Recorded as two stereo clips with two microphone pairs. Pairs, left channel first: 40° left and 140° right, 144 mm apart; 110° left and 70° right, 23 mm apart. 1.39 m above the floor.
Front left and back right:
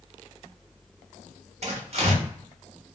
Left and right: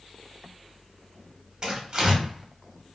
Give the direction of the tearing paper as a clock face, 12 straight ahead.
4 o'clock.